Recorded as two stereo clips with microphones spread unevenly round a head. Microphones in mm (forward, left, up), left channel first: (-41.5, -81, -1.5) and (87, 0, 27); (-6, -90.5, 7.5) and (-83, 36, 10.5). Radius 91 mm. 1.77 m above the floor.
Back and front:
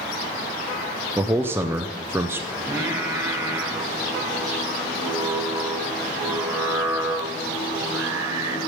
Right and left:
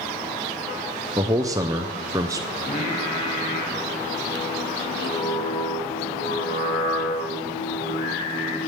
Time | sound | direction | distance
1.2 | a man speaking | 75° left | 0.5 m
2.6 | singing | 20° right | 1.3 m